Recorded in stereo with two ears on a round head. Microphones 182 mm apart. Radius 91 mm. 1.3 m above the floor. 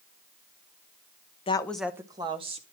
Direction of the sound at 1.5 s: 30° left (ahead or behind).